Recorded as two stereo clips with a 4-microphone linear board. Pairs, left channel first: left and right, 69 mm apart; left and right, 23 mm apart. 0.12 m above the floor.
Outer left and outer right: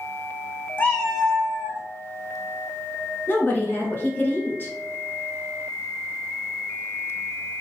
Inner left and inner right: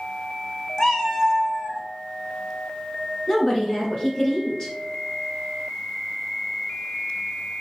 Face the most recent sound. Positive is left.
turn(degrees=30)  # may be behind; listen again after turning